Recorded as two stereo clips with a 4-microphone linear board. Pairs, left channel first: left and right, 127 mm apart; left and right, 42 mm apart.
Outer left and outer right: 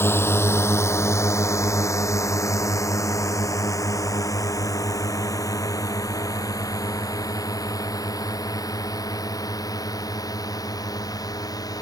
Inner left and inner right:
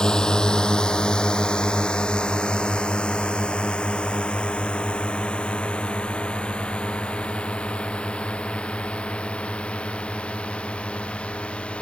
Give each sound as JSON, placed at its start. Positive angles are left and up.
{"t": 0.0, "sound": "a drone", "side_deg": 20}